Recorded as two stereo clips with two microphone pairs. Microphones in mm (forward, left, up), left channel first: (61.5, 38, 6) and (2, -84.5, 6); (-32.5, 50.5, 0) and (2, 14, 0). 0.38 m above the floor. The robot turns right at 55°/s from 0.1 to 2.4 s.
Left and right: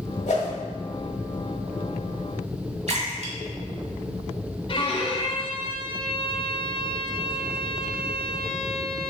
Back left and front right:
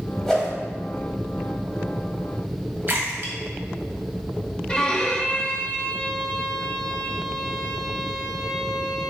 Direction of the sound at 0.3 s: 50° left.